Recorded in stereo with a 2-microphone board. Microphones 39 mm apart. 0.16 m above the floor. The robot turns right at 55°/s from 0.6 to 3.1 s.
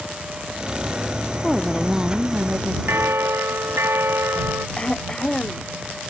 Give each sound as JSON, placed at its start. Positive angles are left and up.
{"t": 1.4, "sound": "a woman speaking", "azimuth_deg": 170}
{"t": 2.9, "sound": "a bell", "side_deg": -75}
{"t": 4.8, "sound": "throat clearing", "side_deg": 20}